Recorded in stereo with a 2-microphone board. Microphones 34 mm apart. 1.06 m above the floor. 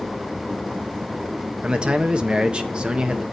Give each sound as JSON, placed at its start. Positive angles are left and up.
{"t": 1.6, "sound": "a man speaking", "side_deg": -30, "distance_m": 1.4}